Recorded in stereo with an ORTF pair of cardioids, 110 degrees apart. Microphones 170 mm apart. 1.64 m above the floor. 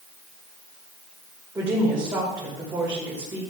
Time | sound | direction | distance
1.6 | a woman speaking | 15° right | 5.5 m